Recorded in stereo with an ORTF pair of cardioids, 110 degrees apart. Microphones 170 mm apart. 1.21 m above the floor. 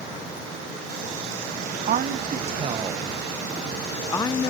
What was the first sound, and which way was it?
A woman speaking, 55° right.